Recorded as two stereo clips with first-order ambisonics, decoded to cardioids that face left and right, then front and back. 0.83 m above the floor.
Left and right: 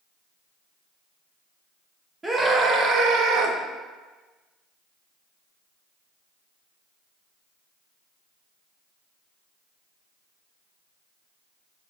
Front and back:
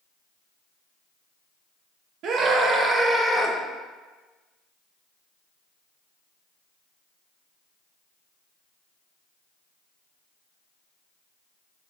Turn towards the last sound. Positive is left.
turn(degrees=-80)